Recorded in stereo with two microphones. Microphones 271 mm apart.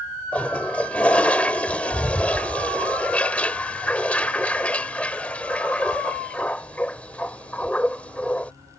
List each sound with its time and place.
0.3 s a toilet flushing: 5° left (ahead or behind)